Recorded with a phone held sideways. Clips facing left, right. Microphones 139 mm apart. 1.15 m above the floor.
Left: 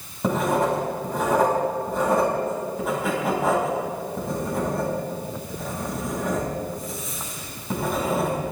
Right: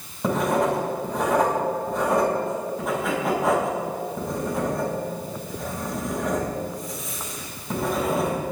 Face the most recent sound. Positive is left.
turn(degrees=0)  # may be behind; listen again after turning